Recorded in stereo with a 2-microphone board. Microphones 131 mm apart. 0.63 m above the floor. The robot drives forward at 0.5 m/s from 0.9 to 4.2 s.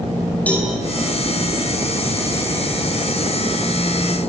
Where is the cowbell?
10° left (ahead or behind), 8 m.